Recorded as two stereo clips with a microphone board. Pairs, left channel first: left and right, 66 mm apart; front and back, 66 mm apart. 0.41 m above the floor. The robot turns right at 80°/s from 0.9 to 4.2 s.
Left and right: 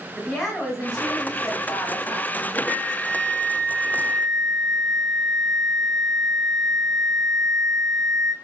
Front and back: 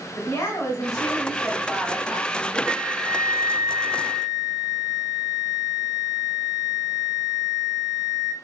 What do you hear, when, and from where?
0.1 s a woman speaking: 5° left, 1.7 m; by 2.6 s 140° left, 1.7 m
2.7 s a flute: 150° left, 1.5 m; by 8.3 s 90° right, 1.5 m